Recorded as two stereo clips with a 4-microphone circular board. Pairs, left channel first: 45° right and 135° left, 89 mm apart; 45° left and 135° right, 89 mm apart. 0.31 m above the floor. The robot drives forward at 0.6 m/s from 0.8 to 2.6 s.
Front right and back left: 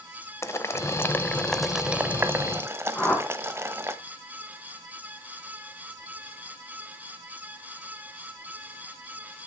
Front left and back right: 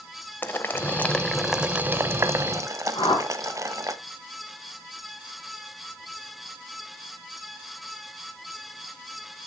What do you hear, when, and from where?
0.4 s boiling: 10° right, 0.7 m; by 4.0 s 175° right, 0.8 m
3.0 s a whoosh: 25° left, 3.5 m